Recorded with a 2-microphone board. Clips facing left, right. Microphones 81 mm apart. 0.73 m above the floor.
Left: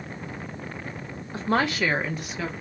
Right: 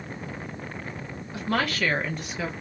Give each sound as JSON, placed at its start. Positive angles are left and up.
{"t": 1.3, "sound": "a woman speaking", "side_deg": 35, "distance_m": 0.8}